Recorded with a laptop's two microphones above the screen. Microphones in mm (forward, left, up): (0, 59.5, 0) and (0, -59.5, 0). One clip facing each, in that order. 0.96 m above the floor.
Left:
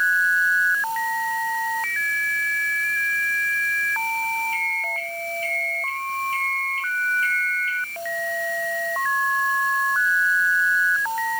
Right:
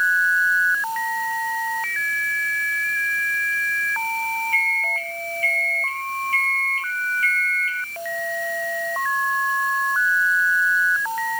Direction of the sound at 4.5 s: 25° left (ahead or behind).